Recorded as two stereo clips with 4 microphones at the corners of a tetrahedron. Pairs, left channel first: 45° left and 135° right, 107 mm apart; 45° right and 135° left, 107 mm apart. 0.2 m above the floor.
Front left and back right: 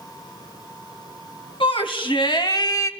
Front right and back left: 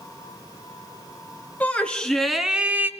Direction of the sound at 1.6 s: 30° left.